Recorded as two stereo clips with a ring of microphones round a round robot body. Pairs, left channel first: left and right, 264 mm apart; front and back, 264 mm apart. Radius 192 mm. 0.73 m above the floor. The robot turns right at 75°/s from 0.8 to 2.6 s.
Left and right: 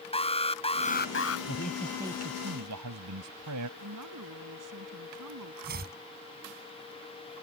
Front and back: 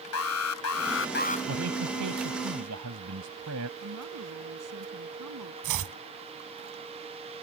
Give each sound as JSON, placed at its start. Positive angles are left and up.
{"t": 0.1, "sound": "an alarm", "azimuth_deg": 20}
{"t": 1.5, "sound": "a man speaking", "azimuth_deg": 145}
{"t": 3.8, "sound": "a woman speaking", "azimuth_deg": -135}
{"t": 5.6, "sound": "chopping", "azimuth_deg": -155}